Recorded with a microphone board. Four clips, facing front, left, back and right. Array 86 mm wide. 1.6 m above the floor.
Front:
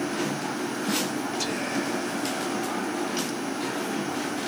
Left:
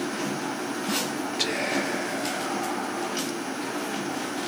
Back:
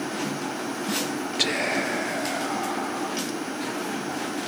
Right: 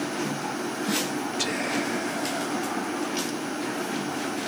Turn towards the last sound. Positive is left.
turn(degrees=165)